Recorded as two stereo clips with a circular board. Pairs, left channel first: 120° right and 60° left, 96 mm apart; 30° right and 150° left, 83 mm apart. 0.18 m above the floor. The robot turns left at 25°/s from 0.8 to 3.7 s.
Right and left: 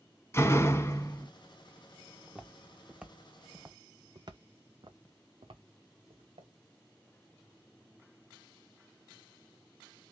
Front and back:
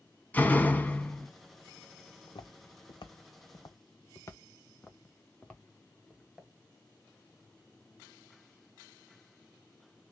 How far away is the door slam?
About 0.8 m.